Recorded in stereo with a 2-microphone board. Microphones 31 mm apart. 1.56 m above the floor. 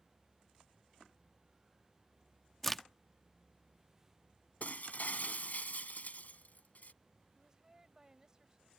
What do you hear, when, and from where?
2.6 s a crack: 10° left (ahead or behind)
4.6 s breaking glass: 55° left (ahead or behind)
7.3 s a woman speaking: 20° right (ahead or behind)